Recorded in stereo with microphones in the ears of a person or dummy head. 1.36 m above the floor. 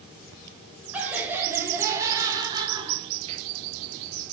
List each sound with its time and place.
0.9 s laughter: 5° right (ahead or behind), 3.5 m; by 3.5 s 35° right (ahead or behind), 2.5 m